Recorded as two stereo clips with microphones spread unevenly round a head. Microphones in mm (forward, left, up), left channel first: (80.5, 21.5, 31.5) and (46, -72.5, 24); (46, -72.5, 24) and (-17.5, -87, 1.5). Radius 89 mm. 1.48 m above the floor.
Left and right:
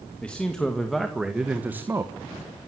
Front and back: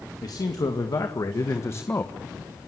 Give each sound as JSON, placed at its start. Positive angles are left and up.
{"t": 0.2, "sound": "a man speaking", "azimuth_deg": -10, "distance_m": 2.5}